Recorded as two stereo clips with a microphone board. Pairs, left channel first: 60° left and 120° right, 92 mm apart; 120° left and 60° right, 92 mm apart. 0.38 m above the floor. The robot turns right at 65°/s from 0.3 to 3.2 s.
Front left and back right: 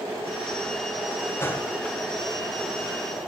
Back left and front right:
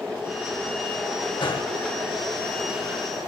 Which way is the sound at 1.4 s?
120° left.